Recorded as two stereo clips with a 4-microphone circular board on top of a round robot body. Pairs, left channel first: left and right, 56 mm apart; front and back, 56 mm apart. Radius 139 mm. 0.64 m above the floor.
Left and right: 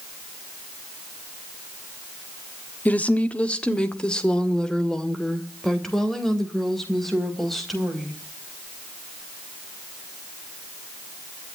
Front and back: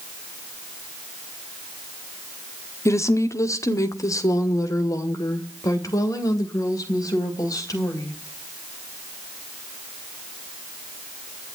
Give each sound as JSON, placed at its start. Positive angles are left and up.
{"t": 2.9, "sound": "a woman speaking", "azimuth_deg": 30, "distance_m": 1.5}